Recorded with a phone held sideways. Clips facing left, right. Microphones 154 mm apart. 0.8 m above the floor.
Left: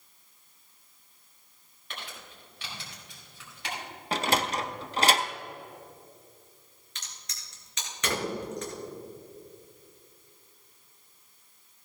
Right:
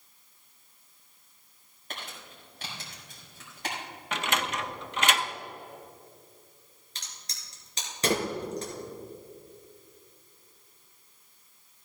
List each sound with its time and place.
1.9 s crumpling: 45° right (ahead or behind), 4.5 m
4.1 s a sliding door: 35° left (ahead or behind), 0.6 m
7.0 s a crack: 35° right (ahead or behind), 3 m